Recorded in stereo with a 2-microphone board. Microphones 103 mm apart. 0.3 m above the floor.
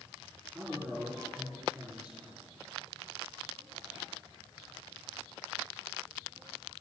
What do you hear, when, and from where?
0.5 s a man speaking: 5° right (ahead or behind), 4 m